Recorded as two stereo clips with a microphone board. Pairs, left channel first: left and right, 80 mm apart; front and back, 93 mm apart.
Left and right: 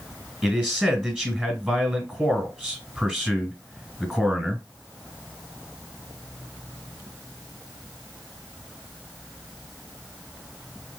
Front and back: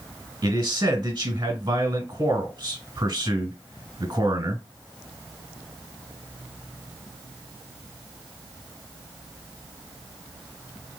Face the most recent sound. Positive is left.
turn(degrees=-160)